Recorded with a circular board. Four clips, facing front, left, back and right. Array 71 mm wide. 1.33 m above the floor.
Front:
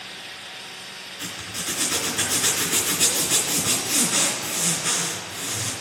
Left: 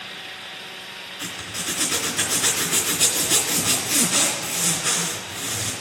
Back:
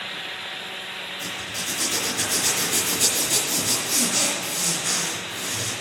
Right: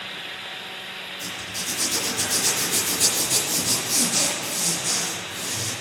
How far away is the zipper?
About 3 m.